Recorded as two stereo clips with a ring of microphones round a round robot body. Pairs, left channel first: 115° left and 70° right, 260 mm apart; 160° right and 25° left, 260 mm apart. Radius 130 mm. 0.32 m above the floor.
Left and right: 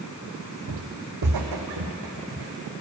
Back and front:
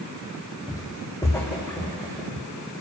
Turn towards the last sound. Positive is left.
turn(degrees=-75)